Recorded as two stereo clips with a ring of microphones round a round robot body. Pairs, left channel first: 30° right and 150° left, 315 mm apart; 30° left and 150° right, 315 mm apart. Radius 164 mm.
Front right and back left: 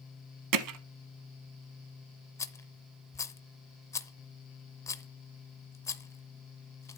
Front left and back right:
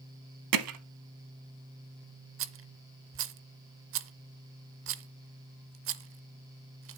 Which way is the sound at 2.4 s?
110° right.